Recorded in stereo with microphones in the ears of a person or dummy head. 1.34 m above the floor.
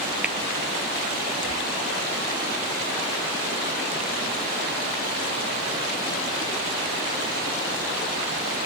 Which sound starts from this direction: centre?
Tapping, at 0.2 s.